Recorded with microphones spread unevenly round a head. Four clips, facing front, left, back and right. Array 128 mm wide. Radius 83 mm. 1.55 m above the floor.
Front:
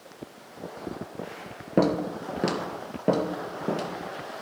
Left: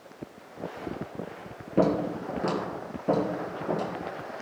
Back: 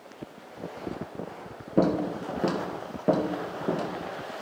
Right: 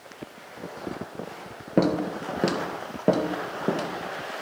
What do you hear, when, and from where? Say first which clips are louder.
1.8 s footsteps: right 1 dB, front 1 dB; 50° right, 1.7 m; by 3.9 s 85° right, 2.5 m